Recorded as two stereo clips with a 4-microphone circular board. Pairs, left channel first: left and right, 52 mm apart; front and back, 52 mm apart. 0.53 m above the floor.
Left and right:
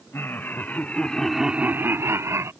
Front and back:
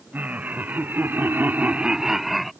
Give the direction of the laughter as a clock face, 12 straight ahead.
8 o'clock.